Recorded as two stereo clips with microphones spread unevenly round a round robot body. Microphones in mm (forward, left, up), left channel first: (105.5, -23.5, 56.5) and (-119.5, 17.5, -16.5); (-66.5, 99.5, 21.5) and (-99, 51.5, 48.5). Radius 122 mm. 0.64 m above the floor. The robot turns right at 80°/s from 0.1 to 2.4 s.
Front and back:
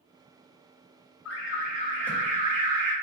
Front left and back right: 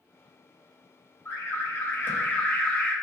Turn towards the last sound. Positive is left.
turn(degrees=110)